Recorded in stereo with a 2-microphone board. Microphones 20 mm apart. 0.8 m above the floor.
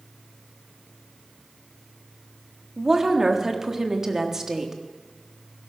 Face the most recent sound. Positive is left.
turn(degrees=-25)  # may be behind; listen again after turning